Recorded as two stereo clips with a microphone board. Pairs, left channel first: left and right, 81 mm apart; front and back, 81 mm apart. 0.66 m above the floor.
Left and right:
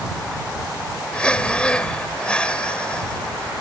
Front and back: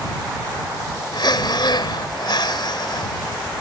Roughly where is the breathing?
Ahead.